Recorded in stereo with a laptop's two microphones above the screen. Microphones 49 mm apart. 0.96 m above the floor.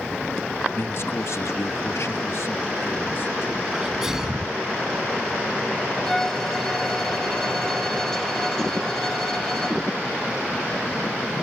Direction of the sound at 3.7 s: 10° right (ahead or behind).